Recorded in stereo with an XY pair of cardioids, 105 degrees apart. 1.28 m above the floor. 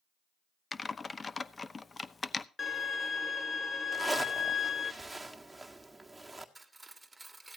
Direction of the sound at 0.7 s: 30° left.